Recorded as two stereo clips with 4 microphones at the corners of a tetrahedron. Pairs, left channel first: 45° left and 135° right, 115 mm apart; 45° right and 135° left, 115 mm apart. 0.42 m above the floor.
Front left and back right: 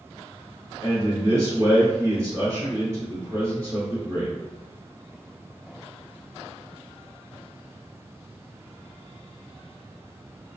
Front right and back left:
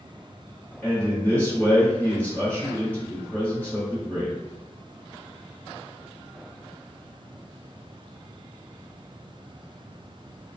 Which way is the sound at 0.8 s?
105° right.